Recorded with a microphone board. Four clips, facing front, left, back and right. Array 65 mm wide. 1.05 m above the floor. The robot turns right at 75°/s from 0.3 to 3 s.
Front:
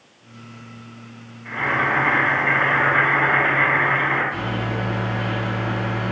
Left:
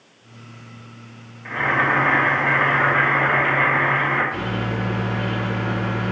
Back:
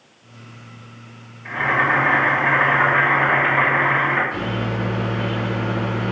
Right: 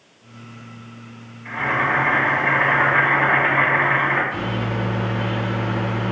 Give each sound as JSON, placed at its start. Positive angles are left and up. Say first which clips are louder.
{"t": 1.4, "sound": "boiling", "louder": "left 1 dB, back 2 dB", "azimuth_deg": 105, "distance_m": 1.5}
{"t": 4.3, "sound": "a microwave", "louder": "even, back 1 dB", "azimuth_deg": -135, "distance_m": 2.0}